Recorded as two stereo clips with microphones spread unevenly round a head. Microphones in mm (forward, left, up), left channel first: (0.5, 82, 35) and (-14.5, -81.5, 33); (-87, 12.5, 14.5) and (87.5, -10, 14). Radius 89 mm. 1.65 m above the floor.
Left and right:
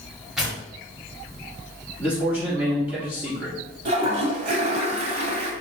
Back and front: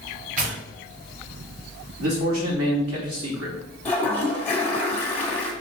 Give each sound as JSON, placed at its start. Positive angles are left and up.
{"t": 0.4, "sound": "tearing paper", "azimuth_deg": -5, "distance_m": 1.8}
{"t": 2.0, "sound": "a man speaking", "azimuth_deg": -15, "distance_m": 3.0}
{"t": 3.9, "sound": "a toilet flushing", "azimuth_deg": -115, "distance_m": 1.7}